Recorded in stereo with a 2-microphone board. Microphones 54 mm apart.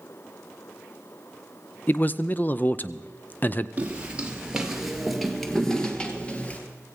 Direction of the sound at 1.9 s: 35° left (ahead or behind).